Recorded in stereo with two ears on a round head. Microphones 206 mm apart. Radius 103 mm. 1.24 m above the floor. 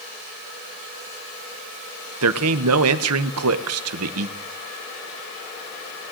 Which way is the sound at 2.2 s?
70° right (ahead or behind).